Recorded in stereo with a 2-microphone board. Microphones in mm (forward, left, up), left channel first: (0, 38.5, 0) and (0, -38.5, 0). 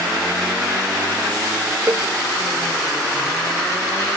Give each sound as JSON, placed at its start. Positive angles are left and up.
{"t": 1.9, "sound": "a cowbell", "side_deg": -35}